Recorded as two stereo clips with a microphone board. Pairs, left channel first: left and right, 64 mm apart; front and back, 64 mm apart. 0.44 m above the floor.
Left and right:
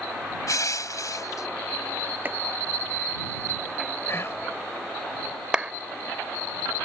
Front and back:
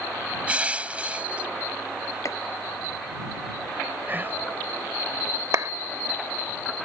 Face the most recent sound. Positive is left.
turn(degrees=-165)